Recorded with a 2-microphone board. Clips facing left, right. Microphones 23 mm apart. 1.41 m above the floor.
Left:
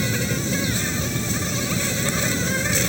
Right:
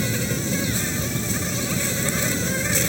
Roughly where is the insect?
Centre.